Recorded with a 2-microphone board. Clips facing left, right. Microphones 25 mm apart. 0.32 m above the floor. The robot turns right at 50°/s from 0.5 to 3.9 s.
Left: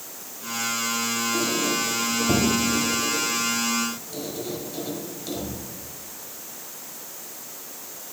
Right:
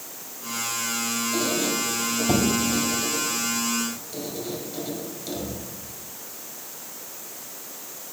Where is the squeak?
40° right (ahead or behind), 1.2 m; by 5.6 s centre (ahead or behind), 1.2 m.